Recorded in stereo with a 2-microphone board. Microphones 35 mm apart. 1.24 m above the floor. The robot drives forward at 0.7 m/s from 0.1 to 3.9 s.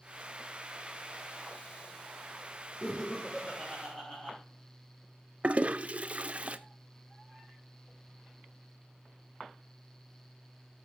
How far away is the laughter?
About 2.5 m.